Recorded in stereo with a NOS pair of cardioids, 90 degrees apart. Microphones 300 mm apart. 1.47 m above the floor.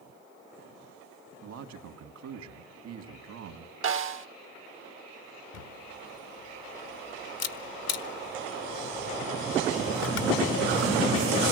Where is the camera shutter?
65° left, 1.6 m.